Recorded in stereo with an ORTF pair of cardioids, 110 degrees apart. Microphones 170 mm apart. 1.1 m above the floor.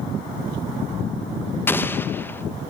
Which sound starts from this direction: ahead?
An explosion, at 1.7 s.